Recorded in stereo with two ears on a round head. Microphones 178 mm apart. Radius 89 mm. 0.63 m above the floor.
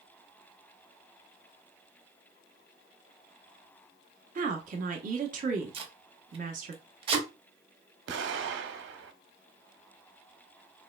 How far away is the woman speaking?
About 0.8 m.